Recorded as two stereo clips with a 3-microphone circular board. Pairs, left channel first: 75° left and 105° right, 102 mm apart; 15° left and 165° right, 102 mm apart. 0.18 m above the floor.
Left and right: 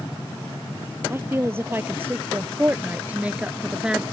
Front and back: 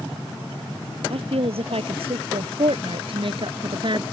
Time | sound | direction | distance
1.1 | a woman speaking | 170° right | ?